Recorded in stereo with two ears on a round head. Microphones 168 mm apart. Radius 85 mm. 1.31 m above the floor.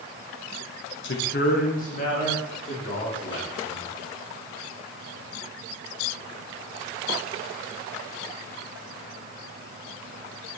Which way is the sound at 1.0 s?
65° left (ahead or behind).